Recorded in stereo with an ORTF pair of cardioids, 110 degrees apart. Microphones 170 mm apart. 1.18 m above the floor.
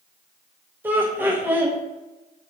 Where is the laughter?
10° right, 0.8 m.